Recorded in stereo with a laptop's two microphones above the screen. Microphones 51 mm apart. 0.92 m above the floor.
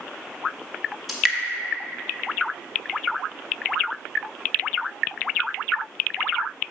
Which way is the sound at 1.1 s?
Centre (ahead or behind).